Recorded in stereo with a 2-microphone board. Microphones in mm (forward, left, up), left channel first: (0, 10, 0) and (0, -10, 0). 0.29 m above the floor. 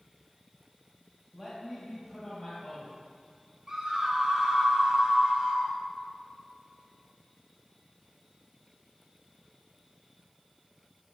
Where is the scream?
15° right (ahead or behind), 1.5 m.